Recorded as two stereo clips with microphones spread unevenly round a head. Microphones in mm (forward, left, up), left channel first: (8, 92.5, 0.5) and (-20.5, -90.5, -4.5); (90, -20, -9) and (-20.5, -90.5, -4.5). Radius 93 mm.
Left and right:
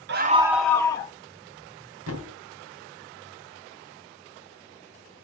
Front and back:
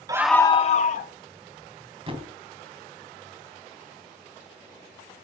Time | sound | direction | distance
0.1 | a scream | 90° right | 0.5 m
2.1 | a thud | 100° right | 3 m